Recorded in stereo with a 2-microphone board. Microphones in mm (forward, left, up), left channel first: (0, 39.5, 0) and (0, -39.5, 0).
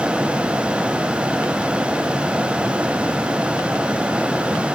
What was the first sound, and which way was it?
Only background noise.